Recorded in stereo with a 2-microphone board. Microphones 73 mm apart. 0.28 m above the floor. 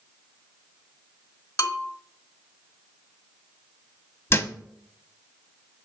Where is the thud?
30° left (ahead or behind), 0.8 m.